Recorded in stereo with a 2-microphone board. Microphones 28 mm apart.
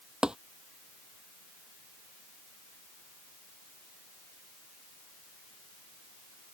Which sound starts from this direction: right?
Tapping, at 0.2 s.